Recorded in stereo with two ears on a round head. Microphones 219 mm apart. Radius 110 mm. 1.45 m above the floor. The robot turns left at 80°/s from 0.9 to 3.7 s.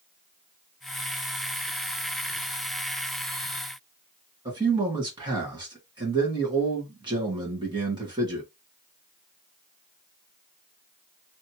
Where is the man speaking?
20° right (ahead or behind), 1.9 m.